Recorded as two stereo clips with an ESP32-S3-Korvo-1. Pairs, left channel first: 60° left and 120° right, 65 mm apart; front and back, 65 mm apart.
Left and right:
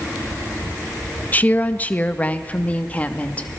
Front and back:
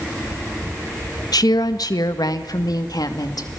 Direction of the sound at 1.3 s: 5° right.